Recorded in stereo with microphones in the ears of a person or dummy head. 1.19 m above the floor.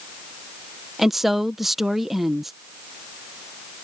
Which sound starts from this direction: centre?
A woman speaking, at 1.0 s.